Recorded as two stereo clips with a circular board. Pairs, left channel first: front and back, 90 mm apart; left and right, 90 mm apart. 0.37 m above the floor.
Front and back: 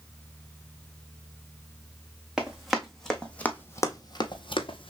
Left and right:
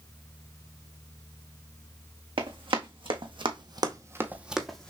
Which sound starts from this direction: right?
Running footsteps, at 2.4 s.